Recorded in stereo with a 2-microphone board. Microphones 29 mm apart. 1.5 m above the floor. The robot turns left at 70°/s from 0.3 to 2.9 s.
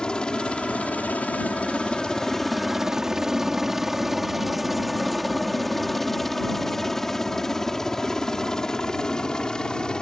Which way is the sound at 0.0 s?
30° left (ahead or behind).